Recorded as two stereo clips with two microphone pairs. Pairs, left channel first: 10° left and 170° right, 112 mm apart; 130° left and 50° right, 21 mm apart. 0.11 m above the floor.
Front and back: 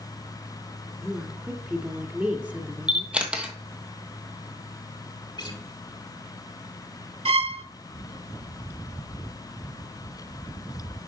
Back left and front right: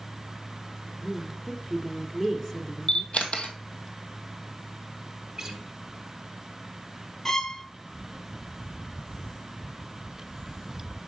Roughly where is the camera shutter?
Behind left.